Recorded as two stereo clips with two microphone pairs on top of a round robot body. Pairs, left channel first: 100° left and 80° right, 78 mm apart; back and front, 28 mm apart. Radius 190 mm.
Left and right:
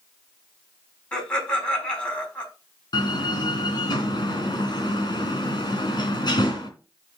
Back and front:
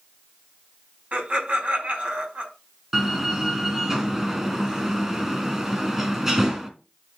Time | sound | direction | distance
1.1 | laughter | 30° left | 6 m
2.9 | a door slam | 75° left | 3 m